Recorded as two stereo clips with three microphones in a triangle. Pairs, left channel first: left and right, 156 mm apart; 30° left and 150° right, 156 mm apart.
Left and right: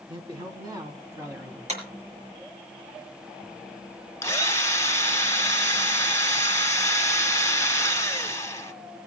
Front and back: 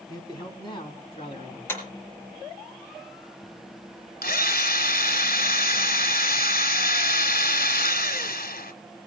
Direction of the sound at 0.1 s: 35° right.